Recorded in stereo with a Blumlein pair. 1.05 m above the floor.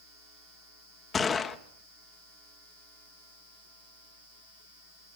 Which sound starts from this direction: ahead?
A gunshot, at 1.1 s.